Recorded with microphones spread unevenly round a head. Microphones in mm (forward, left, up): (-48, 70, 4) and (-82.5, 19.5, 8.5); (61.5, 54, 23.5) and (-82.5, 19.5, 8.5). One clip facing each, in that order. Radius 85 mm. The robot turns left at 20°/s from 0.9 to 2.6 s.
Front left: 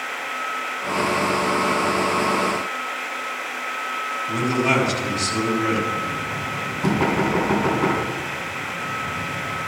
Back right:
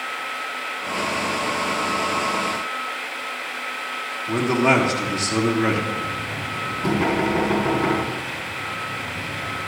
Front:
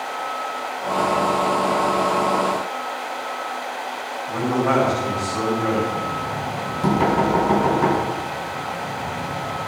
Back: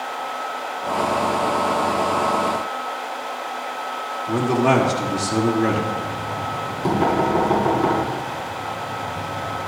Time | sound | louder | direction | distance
4.3 | a man speaking | back right 3 dB, back 3 dB | 170° right | 1.6 m
5.9 | knocking | front left 2 dB, front 1 dB | 5° right | 5 m